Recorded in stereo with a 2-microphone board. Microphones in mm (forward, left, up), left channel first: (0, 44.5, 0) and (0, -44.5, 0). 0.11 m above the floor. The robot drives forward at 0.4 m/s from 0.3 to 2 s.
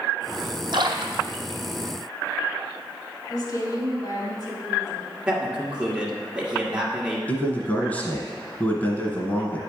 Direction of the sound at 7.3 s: 20° left (ahead or behind).